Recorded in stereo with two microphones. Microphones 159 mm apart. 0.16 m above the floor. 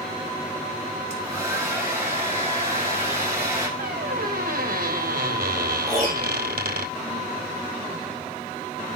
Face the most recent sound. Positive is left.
turn(degrees=20)  # may be behind; listen again after turning